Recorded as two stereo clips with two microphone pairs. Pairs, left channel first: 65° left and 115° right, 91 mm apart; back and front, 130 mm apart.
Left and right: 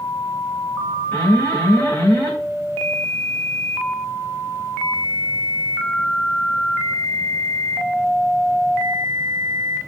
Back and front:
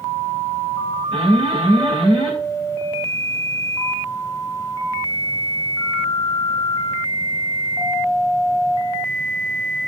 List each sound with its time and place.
1.1 s an alarm: 5° left, 2.5 m